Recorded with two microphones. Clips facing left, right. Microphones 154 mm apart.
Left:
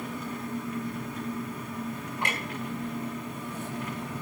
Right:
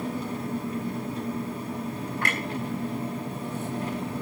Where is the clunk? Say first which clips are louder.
Right 1 dB; 20° left (ahead or behind), 4.5 m.